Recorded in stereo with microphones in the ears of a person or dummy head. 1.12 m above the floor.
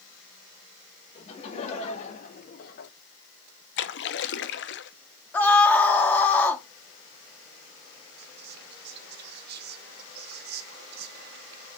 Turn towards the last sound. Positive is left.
turn(degrees=-60)  # may be behind; listen again after turning